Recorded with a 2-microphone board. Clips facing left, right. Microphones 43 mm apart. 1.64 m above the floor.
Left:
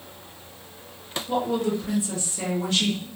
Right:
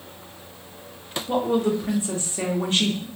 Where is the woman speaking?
35° right (ahead or behind), 0.8 m.